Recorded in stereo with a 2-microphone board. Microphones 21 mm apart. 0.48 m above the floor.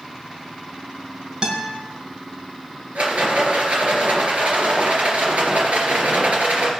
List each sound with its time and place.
1.4 s a guitar: 40° right (ahead or behind), 2.5 m
3.0 s a rattle: 80° right, 3 m